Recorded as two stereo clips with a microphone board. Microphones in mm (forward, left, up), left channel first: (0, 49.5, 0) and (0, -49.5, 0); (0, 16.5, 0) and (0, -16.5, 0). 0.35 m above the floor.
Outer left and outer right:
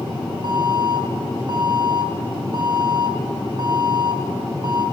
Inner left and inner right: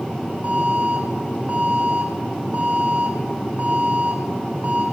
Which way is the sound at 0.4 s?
55° right (ahead or behind).